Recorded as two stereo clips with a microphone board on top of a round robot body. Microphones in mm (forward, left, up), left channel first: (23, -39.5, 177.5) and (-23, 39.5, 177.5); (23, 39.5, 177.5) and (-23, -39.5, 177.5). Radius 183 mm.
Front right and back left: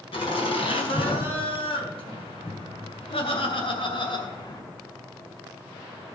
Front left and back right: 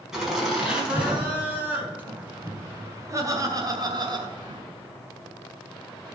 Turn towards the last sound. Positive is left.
turn(degrees=-100)